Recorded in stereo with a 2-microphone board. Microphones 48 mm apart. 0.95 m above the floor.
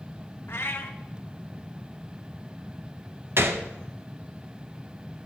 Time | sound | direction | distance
0.5 | a cat meowing | 55° left (ahead or behind) | 0.6 m
3.4 | a gunshot | 55° right (ahead or behind) | 0.6 m